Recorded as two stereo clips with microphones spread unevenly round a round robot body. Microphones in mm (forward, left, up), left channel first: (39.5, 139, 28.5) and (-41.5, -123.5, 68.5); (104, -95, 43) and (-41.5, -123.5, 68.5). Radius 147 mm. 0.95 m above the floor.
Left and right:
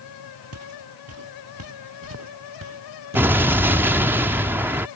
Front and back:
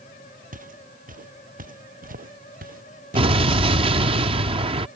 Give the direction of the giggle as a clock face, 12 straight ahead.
I don't hear a giggle.